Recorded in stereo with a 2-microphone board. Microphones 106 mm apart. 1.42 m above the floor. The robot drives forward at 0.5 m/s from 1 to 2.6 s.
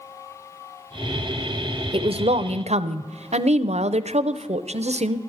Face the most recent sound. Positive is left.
turn(degrees=-85)